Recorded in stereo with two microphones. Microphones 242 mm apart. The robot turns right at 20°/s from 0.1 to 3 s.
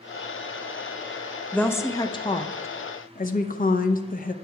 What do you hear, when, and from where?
1.5 s a woman speaking: 5° left (ahead or behind), 0.6 m; by 4.3 s 35° left (ahead or behind), 0.6 m